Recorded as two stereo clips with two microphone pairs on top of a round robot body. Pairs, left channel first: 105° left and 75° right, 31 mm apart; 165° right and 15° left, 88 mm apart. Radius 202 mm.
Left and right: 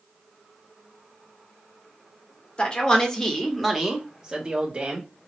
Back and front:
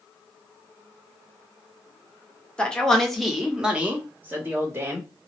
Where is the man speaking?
145° left, 1.6 m; by 5.1 s 45° right, 1.9 m.